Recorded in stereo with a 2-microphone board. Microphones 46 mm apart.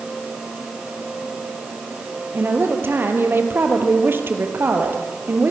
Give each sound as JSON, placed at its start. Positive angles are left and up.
{"t": 2.3, "sound": "a woman speaking", "side_deg": -50, "distance_m": 3.5}